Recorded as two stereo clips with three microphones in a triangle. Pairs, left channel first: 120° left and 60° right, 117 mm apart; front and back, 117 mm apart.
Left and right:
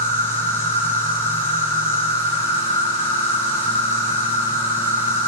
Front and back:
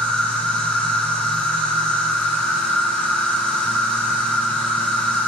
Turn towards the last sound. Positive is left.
turn(degrees=80)